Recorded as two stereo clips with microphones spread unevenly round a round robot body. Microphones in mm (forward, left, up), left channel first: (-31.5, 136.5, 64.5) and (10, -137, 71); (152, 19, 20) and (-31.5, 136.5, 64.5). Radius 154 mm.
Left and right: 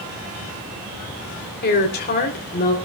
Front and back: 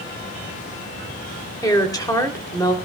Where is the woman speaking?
40° left, 3.5 m.